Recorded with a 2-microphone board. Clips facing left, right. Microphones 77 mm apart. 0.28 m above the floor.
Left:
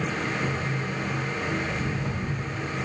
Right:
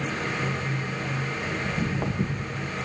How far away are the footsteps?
About 3 m.